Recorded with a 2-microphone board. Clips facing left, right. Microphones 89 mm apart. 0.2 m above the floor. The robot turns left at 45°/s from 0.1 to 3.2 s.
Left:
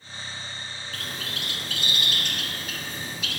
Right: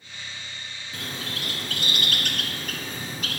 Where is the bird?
20° right (ahead or behind), 1.0 m; by 3.4 s 45° right (ahead or behind), 1.0 m.